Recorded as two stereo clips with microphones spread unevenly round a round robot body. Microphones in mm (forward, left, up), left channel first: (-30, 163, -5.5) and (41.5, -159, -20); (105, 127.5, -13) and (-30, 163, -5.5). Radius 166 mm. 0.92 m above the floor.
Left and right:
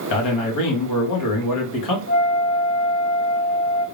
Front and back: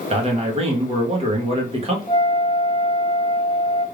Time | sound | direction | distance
0.1 | a man speaking | 125° left | 1.6 m
2.1 | a flute | 50° left | 1.1 m